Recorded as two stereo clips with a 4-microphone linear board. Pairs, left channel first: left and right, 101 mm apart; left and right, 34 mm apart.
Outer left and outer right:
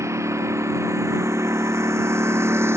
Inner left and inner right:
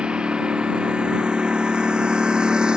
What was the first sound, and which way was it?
A lawn mower, 30° right (ahead or behind).